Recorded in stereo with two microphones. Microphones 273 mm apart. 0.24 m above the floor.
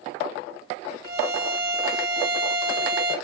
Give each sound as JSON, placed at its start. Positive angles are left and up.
{"t": 1.0, "sound": "a violin", "side_deg": -35, "distance_m": 1.3}